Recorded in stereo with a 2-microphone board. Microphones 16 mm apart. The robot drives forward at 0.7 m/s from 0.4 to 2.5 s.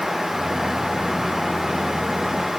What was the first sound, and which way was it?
Only background noise.